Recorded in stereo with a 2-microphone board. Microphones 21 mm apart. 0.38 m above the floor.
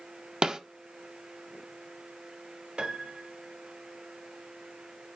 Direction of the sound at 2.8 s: 60° right (ahead or behind).